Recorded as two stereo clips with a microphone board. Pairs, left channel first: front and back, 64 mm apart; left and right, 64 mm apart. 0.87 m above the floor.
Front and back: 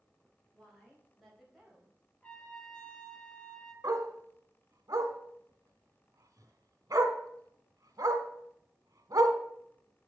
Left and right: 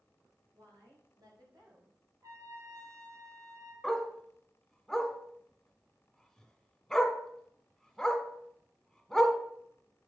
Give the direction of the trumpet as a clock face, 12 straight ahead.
2 o'clock.